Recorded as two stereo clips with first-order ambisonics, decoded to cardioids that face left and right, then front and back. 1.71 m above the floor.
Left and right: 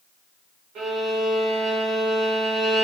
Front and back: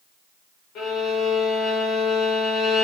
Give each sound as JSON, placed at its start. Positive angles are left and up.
{"t": 0.8, "sound": "a violin", "azimuth_deg": -50, "distance_m": 1.1}